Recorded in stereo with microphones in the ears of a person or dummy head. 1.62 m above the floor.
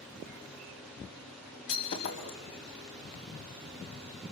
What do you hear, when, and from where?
1.7 s breaking glass: 55° left (ahead or behind), 4.5 m